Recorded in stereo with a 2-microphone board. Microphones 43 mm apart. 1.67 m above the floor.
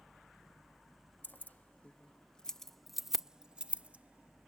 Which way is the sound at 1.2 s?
50° left (ahead or behind).